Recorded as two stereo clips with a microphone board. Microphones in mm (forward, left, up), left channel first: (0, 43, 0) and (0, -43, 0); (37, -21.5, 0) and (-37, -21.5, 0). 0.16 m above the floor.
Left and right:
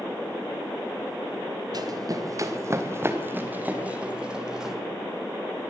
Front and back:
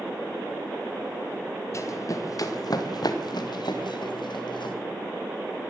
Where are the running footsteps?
50° right, 3.5 m; by 4.8 s 5° right, 4.5 m.